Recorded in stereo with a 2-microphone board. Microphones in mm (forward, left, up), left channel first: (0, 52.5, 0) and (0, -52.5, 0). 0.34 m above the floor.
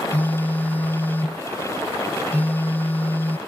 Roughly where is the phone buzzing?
Centre.